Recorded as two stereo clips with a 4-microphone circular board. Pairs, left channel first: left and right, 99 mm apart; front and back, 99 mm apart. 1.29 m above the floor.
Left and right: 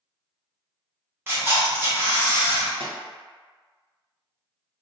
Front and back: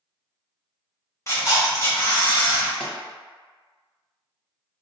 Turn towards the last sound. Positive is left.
turn(degrees=-85)